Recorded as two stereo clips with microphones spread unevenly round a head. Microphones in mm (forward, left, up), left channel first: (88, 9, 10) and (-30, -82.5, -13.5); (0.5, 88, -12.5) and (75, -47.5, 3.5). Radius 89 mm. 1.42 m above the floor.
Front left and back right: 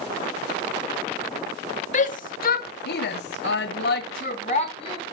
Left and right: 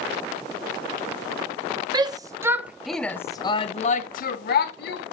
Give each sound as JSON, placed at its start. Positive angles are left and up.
{"t": 1.9, "sound": "a shout", "azimuth_deg": 0, "distance_m": 1.2}